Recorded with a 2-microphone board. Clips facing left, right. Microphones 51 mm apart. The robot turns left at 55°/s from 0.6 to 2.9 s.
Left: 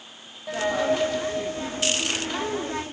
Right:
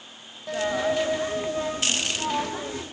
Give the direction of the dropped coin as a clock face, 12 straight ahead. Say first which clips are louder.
Left 1 dB; 12 o'clock.